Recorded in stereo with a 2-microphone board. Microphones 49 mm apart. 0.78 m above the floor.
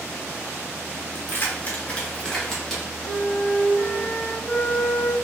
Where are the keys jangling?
50° left (ahead or behind), 1.1 m; by 2.8 s centre (ahead or behind), 1.7 m.